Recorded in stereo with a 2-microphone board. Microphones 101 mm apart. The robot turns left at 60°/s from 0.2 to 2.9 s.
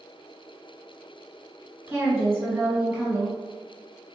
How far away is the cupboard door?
No cupboard door in this recording.